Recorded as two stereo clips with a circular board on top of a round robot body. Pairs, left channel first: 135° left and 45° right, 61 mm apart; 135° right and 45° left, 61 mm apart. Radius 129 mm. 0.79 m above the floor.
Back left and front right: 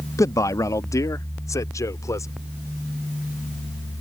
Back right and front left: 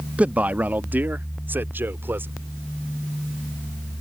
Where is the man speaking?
110° left; by 2.3 s 100° left.